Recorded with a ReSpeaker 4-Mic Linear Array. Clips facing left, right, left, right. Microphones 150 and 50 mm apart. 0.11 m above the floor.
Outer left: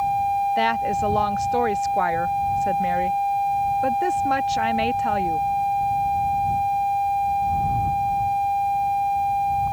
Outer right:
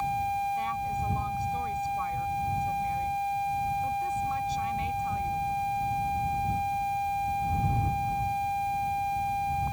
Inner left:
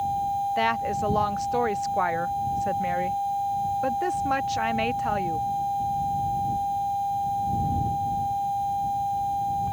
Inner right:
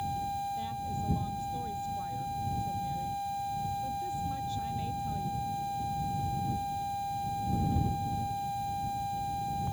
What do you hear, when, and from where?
0.6 s a woman speaking: 85° left; by 5.5 s 75° left (ahead or behind)